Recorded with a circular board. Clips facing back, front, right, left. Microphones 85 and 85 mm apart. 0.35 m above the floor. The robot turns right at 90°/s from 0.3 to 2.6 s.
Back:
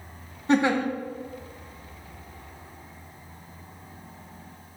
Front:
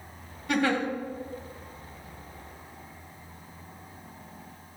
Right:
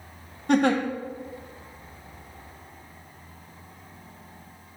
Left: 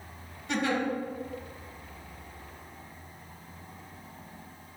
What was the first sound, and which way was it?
A giggle, 125° right.